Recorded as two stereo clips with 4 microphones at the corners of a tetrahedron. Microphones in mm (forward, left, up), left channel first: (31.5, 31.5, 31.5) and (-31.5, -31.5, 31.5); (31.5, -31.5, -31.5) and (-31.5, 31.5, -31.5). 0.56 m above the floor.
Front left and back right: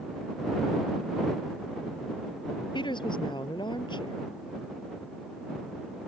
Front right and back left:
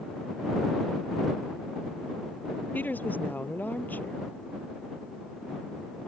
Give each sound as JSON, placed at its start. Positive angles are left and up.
{"t": 2.7, "sound": "a woman speaking", "azimuth_deg": 25}